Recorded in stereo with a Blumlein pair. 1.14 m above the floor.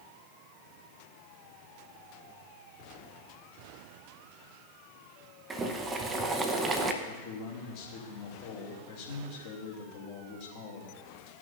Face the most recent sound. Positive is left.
turn(degrees=50)